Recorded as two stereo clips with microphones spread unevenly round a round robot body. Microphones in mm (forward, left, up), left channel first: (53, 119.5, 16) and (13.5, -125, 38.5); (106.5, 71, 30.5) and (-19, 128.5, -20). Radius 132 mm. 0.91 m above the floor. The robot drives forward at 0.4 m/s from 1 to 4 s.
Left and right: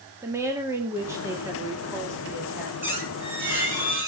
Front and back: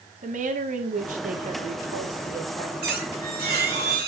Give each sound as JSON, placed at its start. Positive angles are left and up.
{"t": 0.2, "sound": "a woman speaking", "azimuth_deg": 180, "distance_m": 1.8}
{"t": 2.8, "sound": "a squeak", "azimuth_deg": 180, "distance_m": 3.5}